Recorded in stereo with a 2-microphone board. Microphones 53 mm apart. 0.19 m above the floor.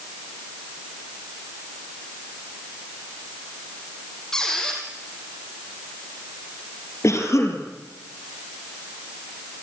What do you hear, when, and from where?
4.3 s a squeak: 10° left (ahead or behind), 5 m
7.0 s a cough: 65° left (ahead or behind), 4 m